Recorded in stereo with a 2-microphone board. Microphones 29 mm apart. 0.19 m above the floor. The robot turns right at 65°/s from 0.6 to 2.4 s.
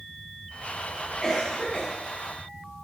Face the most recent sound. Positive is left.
turn(degrees=130)